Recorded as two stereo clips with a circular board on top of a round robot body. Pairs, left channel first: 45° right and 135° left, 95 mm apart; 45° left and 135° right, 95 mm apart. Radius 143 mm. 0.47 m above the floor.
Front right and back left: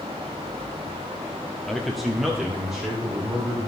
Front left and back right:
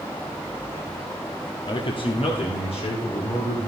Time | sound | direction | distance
1.7 | a man speaking | 40° left | 1.3 m